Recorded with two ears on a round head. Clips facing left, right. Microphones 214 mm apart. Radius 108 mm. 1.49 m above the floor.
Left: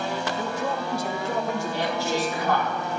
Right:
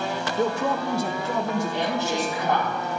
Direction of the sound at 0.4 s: 35° right (ahead or behind).